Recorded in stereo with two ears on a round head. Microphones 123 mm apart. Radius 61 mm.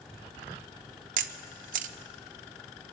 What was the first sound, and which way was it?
A camera shutter, 65° right (ahead or behind).